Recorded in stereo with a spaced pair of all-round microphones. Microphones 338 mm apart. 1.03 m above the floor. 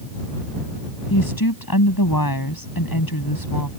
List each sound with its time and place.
1.1 s a woman speaking: 85° left